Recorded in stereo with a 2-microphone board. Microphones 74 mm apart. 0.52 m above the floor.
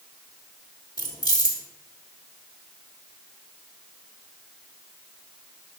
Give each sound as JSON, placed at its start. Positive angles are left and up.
{"t": 1.0, "sound": "keys jangling", "side_deg": 65, "distance_m": 1.2}